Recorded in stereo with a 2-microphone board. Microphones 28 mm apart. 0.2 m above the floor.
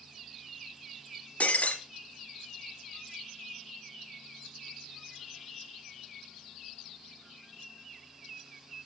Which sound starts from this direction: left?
Breaking glass, at 1.4 s.